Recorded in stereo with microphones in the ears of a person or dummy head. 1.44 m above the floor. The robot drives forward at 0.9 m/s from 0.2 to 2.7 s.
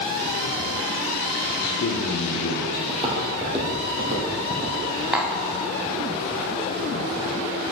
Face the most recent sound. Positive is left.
turn(degrees=-5)  # may be behind; listen again after turning